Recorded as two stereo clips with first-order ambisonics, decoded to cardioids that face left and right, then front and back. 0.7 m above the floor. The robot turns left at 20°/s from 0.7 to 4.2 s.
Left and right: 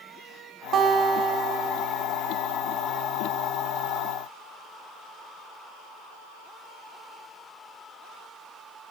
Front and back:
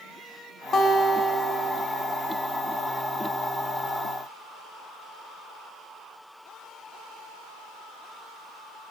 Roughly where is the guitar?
Ahead right.